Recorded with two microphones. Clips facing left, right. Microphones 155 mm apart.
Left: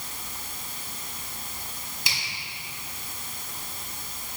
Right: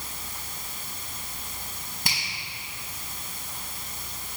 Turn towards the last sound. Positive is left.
turn(degrees=-50)  # may be behind; listen again after turning